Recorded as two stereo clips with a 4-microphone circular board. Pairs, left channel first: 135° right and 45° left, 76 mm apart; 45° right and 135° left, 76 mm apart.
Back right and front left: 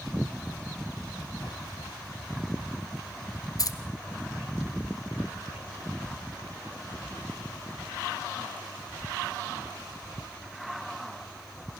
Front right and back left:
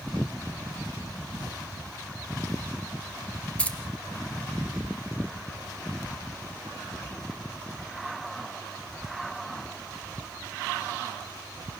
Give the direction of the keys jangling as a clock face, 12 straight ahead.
4 o'clock.